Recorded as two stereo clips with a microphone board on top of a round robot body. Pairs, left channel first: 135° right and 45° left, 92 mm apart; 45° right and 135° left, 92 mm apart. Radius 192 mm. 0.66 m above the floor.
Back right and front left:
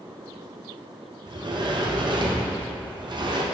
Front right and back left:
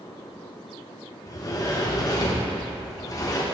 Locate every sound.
1.3 s a sliding door: 5° left, 1.2 m